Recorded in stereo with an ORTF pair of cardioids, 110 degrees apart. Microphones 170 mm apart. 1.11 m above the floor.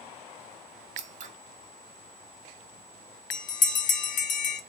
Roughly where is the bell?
Ahead left.